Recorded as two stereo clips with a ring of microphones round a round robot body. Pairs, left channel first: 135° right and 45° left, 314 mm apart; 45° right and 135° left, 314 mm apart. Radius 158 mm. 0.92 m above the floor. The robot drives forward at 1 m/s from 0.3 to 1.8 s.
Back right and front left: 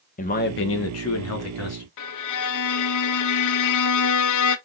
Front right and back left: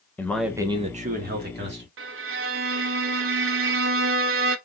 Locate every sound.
0.2 s a man speaking: 125° right, 0.8 m; by 1.9 s 170° right, 1.9 m
2.0 s a violin: 170° right, 0.5 m